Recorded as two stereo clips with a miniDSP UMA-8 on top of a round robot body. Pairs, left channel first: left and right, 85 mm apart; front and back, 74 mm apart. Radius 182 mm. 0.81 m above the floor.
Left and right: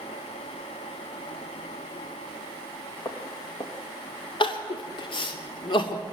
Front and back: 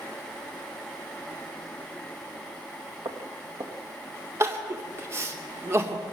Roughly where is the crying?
Behind left.